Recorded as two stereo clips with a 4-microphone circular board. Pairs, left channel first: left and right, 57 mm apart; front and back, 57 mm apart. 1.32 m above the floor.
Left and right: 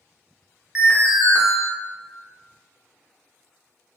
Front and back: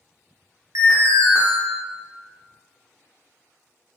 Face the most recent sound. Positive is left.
turn(degrees=-165)